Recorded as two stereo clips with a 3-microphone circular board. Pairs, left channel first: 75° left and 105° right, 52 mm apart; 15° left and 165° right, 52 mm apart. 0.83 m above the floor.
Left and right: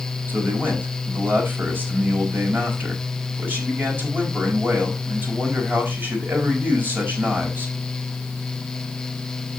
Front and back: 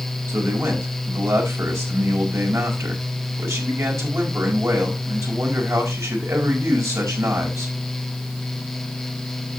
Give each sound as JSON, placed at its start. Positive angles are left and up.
{"t": 0.3, "sound": "a man speaking", "azimuth_deg": -155, "distance_m": 5.5}